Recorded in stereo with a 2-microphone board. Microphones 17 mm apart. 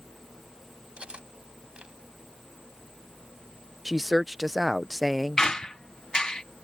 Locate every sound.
1.0 s cutlery clinking: 80° right
3.9 s a woman speaking: 5° right (ahead or behind)
5.4 s a squeak: 40° left (ahead or behind)